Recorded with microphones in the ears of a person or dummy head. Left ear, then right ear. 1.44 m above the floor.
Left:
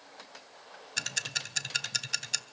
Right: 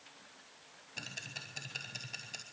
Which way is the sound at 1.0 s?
50° left (ahead or behind).